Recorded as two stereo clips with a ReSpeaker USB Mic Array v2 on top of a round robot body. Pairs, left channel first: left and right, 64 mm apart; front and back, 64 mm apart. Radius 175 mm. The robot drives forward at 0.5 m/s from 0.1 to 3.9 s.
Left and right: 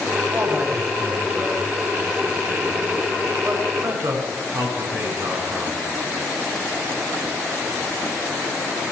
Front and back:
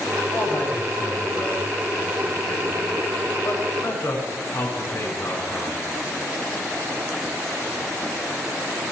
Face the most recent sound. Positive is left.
turn(degrees=-55)